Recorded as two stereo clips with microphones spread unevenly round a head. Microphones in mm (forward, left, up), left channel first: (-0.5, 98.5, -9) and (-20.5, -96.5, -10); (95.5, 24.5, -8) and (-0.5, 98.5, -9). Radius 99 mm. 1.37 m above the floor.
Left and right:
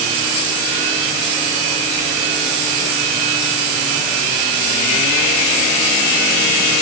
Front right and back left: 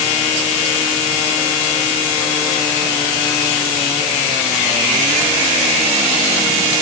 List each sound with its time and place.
Only background noise.